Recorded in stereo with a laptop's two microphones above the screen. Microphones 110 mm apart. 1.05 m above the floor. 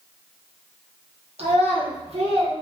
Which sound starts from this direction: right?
A child speaking, at 1.4 s.